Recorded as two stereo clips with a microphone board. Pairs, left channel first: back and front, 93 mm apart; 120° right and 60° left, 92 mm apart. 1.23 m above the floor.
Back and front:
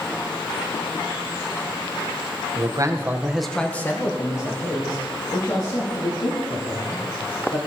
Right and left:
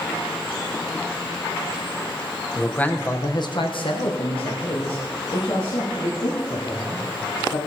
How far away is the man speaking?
About 1.1 m.